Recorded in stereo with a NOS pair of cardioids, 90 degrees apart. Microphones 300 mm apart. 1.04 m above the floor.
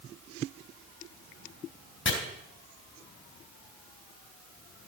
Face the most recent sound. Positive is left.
turn(degrees=40)